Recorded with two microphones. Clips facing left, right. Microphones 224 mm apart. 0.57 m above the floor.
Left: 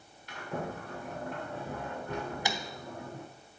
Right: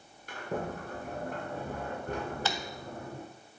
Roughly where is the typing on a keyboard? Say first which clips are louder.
Left 1 dB; centre.